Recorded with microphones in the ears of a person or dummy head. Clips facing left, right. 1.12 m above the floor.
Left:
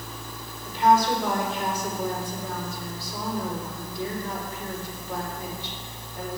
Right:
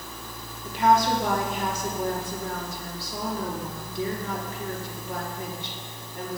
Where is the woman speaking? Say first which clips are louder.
Left 1 dB; 45° right (ahead or behind), 3 m.